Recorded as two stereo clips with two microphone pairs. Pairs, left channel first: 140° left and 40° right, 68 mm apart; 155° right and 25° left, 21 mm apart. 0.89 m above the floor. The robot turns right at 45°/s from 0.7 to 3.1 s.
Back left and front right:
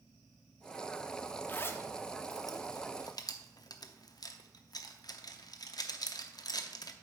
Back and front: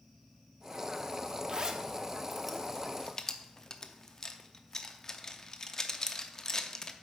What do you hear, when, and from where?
1.5 s a zipper: 80° left, 0.6 m; by 6.9 s 150° left, 0.6 m